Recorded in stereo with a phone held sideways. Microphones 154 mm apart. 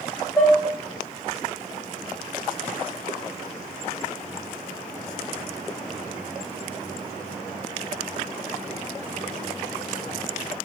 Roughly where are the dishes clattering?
Centre.